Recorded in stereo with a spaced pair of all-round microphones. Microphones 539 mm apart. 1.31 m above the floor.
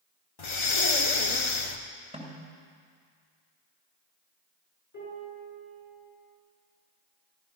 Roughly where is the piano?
Left.